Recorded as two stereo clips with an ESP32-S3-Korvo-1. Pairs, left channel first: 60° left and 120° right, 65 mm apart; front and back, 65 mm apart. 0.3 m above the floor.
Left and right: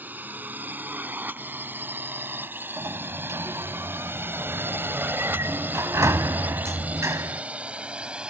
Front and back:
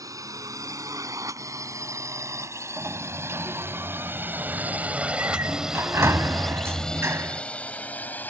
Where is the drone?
175° right; by 8.3 s 50° right.